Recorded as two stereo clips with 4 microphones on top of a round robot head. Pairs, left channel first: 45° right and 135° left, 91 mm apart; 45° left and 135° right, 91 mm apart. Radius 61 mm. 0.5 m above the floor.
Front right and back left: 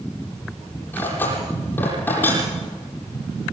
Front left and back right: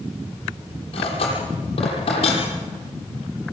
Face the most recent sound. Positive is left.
turn(degrees=25)